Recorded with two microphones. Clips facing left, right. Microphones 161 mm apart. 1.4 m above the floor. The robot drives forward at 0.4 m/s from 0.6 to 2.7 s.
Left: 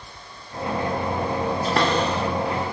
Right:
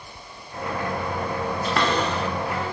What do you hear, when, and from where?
1.6 s a cupboard door: 35° left (ahead or behind), 0.9 m; by 2.7 s 25° left (ahead or behind), 1.2 m